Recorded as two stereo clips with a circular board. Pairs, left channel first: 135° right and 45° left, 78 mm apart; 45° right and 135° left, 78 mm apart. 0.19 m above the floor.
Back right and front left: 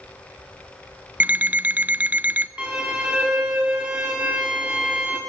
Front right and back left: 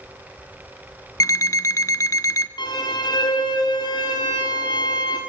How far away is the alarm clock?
About 0.7 m.